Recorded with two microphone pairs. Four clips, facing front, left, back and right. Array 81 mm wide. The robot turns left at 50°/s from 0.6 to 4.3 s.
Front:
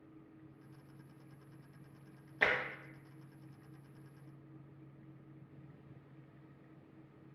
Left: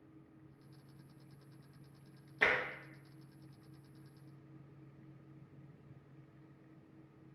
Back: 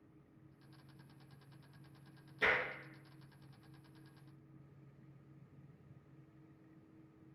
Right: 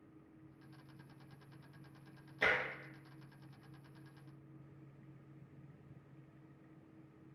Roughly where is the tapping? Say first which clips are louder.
Left 1 dB, front 1 dB; ahead left.